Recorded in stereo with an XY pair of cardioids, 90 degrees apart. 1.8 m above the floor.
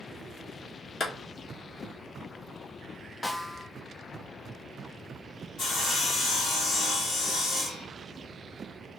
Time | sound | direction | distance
1.0 | a clap | 50° left | 1.9 m
3.2 | a snare drum | 20° left | 1.0 m
5.6 | sawing | 70° left | 2.5 m